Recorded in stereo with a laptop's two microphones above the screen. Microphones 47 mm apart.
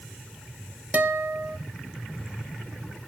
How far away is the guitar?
About 1.2 m.